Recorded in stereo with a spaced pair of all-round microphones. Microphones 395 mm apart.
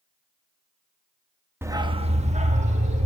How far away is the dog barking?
About 0.8 m.